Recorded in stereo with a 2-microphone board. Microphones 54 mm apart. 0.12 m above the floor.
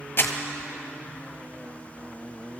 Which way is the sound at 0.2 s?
35° left (ahead or behind).